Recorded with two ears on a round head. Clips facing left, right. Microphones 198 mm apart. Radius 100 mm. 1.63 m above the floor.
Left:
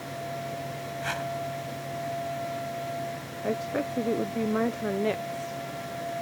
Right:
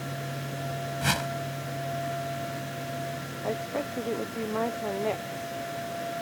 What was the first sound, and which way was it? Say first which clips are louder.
A whoosh: right 2 dB; 60° right (ahead or behind).